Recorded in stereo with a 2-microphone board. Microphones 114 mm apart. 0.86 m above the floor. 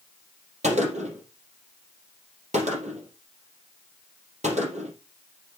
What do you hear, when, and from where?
0.6 s a gunshot: 65° right (ahead or behind), 4 m